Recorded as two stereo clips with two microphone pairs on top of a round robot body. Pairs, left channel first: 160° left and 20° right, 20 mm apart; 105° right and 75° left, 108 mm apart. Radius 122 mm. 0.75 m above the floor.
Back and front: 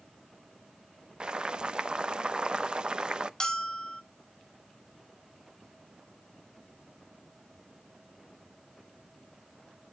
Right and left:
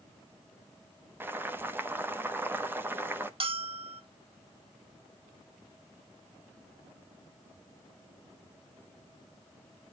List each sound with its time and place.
1.2 s boiling: straight ahead, 0.9 m
3.4 s a bell: 95° left, 1.2 m